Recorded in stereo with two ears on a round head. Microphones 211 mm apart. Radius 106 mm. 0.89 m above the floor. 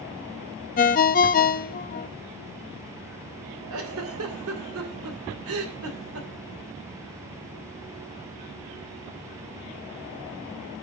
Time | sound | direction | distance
0.8 | a ringtone | 35° left (ahead or behind) | 0.6 m
3.7 | a giggle | 65° right (ahead or behind) | 2.5 m